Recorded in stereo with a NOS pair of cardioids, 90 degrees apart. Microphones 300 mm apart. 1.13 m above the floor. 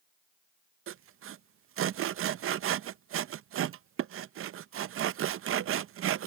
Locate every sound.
0.9 s sawing: 50° right